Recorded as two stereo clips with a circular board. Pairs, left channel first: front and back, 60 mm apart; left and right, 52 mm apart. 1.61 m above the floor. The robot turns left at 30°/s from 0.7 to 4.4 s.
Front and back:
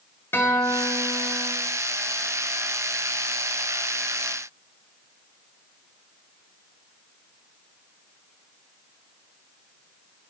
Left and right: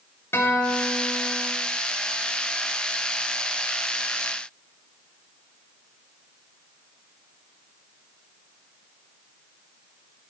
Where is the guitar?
50° left, 2.5 m; by 1.5 s 25° left, 2.5 m.